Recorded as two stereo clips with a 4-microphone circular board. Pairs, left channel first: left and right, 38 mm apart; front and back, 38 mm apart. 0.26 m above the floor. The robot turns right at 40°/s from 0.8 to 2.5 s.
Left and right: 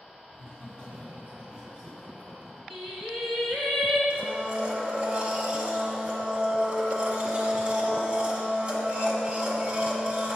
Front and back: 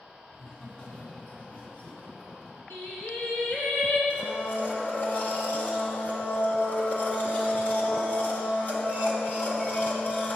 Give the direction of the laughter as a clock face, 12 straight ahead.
2 o'clock.